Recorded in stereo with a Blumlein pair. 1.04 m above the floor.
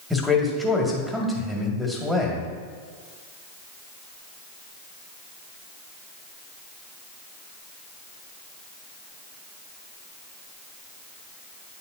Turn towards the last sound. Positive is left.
turn(degrees=0)